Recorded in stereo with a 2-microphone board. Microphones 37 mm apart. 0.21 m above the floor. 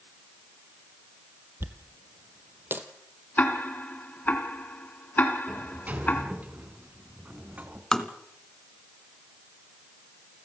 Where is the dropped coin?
80° right, 1.5 m.